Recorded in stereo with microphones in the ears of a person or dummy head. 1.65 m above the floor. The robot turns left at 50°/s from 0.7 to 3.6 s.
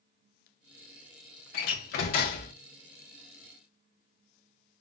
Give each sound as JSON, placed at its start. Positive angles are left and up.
{"t": 1.5, "sound": "a door slam", "azimuth_deg": 110, "distance_m": 0.9}